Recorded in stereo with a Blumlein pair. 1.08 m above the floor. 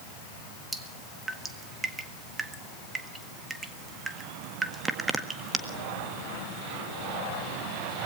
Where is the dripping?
15° right, 1.7 m.